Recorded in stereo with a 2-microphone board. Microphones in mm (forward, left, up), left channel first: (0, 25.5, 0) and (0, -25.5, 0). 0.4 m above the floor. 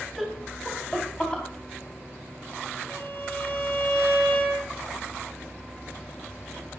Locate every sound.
0.2 s laughter: 5° left (ahead or behind), 2 m; by 1.4 s 20° left (ahead or behind), 2.5 m
2.9 s a violin: 50° left (ahead or behind), 6 m